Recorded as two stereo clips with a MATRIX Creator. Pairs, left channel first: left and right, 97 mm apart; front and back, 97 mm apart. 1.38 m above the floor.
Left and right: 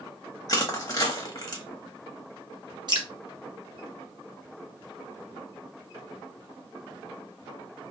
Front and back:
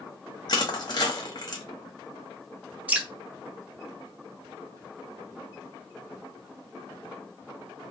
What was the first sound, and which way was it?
Crushing, 40° left.